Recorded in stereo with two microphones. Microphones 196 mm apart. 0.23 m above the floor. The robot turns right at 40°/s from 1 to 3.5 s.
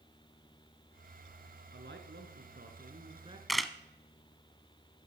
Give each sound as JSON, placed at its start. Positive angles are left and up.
{"t": 1.7, "sound": "a man speaking", "azimuth_deg": -95, "distance_m": 2.5}
{"t": 3.5, "sound": "a camera shutter", "side_deg": 0, "distance_m": 0.7}